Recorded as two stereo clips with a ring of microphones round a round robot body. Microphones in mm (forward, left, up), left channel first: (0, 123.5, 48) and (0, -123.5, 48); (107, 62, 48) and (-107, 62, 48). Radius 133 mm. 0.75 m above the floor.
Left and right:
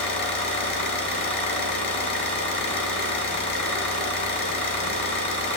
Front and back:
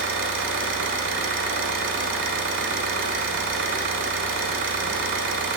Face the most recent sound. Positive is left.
turn(degrees=155)